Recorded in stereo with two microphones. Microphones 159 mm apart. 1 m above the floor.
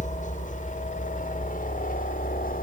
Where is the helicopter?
50° left (ahead or behind); by 2.6 s 65° left (ahead or behind).